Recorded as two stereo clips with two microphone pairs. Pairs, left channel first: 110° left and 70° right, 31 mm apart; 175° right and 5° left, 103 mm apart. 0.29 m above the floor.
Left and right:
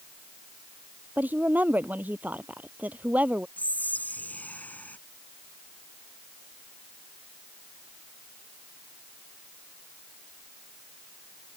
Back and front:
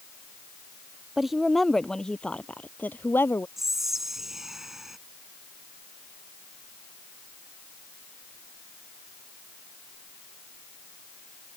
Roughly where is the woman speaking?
Right.